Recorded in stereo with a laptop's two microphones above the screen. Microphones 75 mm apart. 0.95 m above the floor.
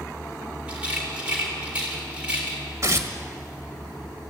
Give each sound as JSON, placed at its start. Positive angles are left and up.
{"t": 0.7, "sound": "a rattle", "side_deg": -15, "distance_m": 3.5}
{"t": 2.8, "sound": "tearing paper", "side_deg": -40, "distance_m": 1.5}